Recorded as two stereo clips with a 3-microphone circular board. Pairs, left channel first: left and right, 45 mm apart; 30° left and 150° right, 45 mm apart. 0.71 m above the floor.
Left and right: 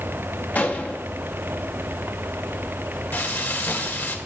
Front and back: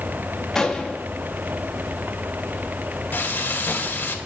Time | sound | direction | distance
0.6 | a gunshot | 105° left | 0.9 m
3.1 | frying | 65° left | 1.4 m